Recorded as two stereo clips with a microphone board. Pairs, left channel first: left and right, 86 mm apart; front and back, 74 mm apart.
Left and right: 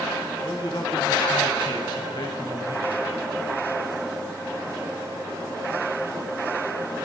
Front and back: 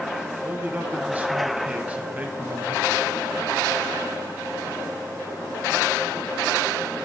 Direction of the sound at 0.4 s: 115° left.